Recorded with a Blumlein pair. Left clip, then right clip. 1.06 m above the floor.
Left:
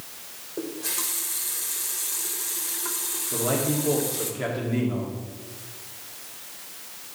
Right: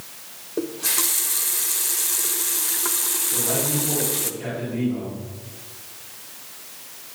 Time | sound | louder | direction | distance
0.6 | a running tap | right 6 dB | 70° right | 0.5 m
3.3 | a man speaking | left 2 dB | 55° left | 2.5 m